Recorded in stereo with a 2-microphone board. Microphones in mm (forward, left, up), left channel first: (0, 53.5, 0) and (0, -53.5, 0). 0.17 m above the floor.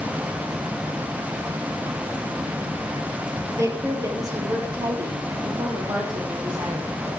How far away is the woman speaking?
About 4 m.